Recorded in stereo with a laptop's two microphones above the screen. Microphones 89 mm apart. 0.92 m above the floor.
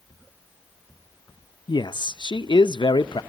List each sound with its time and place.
1.7 s a man speaking: 55° left (ahead or behind), 0.6 m